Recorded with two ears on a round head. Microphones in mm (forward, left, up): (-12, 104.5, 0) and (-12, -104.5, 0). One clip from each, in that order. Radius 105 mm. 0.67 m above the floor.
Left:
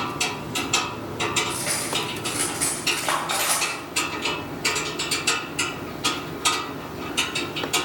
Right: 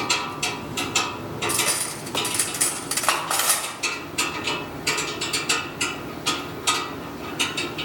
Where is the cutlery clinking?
40° right (ahead or behind), 1.9 m.